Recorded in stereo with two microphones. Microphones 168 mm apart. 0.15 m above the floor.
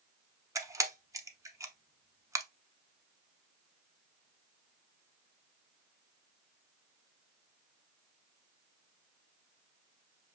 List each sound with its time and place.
0.6 s a camera shutter: 20° right (ahead or behind), 0.7 m